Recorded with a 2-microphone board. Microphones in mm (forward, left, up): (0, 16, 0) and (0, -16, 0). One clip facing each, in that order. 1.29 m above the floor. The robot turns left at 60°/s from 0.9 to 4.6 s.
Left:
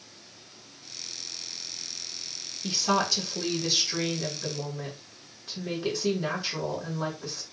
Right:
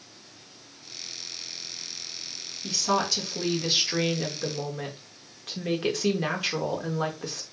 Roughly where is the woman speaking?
Ahead left.